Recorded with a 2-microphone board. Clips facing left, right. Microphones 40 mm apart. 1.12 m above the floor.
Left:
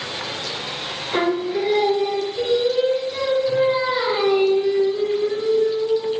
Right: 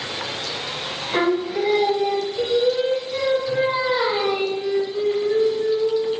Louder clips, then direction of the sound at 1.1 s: Even; 10° right (ahead or behind).